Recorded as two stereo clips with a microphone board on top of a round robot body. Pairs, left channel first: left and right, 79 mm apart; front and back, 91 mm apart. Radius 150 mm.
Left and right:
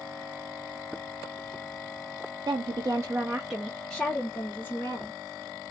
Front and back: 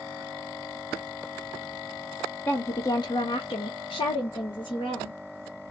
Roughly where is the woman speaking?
Right.